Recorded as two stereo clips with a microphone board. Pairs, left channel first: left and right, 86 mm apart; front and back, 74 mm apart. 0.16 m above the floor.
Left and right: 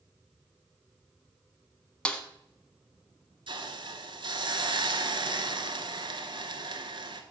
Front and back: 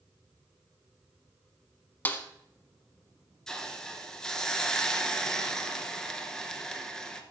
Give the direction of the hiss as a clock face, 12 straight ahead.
3 o'clock.